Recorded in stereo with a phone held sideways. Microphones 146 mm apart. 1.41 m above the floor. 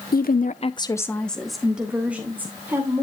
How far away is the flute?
No flute in this recording.